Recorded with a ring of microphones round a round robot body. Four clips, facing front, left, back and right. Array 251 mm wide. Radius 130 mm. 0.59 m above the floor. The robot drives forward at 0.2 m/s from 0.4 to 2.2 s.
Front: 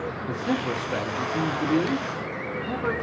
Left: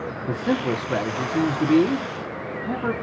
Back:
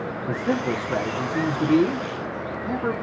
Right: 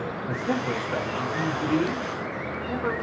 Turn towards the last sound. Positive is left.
turn(degrees=125)